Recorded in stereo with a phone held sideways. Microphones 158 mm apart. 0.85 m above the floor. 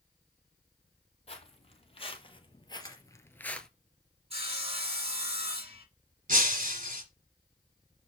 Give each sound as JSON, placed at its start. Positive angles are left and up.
{"t": 1.3, "sound": "footsteps", "side_deg": 40, "distance_m": 1.7}
{"t": 2.8, "sound": "a camera shutter", "side_deg": 25, "distance_m": 3.0}
{"t": 4.3, "sound": "sawing", "side_deg": -40, "distance_m": 1.5}
{"t": 6.3, "sound": "breaking glass", "side_deg": -55, "distance_m": 1.5}